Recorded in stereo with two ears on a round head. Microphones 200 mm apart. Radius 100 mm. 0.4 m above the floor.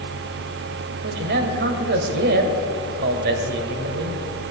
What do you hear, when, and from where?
1.0 s a man speaking: 50° right (ahead or behind), 1.8 m